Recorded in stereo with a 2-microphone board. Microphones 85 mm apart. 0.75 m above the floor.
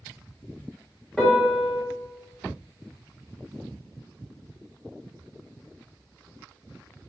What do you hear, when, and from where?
1.2 s a piano: 5° left (ahead or behind), 1.1 m